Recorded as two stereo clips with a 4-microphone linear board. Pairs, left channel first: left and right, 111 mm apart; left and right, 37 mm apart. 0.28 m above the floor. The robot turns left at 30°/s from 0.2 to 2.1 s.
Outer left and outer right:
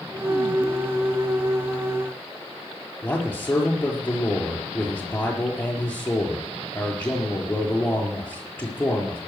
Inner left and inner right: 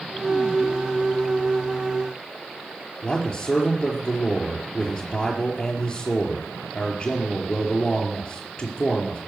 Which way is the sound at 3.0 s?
15° left (ahead or behind).